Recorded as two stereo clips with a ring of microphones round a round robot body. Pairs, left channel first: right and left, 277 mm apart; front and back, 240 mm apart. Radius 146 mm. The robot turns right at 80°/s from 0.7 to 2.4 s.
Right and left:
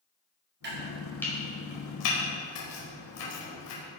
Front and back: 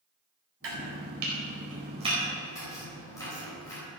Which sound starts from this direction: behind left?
Chopping, at 0.6 s.